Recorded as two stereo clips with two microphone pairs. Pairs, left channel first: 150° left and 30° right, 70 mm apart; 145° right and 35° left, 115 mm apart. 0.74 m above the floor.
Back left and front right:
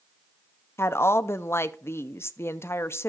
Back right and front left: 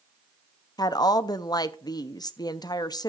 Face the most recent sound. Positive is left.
turn(degrees=180)